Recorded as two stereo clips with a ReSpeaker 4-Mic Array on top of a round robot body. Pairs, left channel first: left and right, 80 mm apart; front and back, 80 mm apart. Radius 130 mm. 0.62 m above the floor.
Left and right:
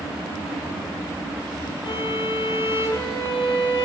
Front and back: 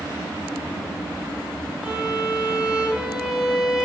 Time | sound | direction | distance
1.8 | a violin | 100° left | 3 m